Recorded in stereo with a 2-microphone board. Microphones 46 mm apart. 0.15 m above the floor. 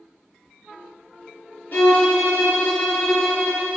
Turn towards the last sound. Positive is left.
turn(degrees=40)  # may be behind; listen again after turning